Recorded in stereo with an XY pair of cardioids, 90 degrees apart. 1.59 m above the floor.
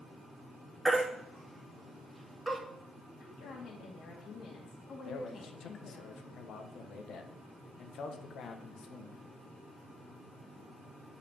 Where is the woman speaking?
70° left, 2.5 m.